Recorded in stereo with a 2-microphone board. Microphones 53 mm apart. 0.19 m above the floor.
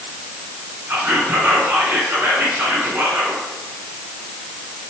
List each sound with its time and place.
0.9 s whispering: 40° right (ahead or behind), 2 m